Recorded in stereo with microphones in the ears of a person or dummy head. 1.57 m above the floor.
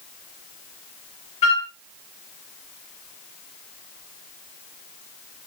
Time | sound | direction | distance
1.4 | a flute | 35° left (ahead or behind) | 1.2 m